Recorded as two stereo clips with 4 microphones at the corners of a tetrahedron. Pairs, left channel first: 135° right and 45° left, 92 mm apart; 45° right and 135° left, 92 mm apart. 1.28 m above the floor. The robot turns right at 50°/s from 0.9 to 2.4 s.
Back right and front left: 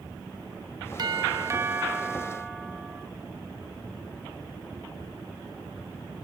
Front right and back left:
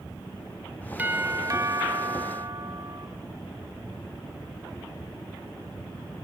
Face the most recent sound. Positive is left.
turn(degrees=140)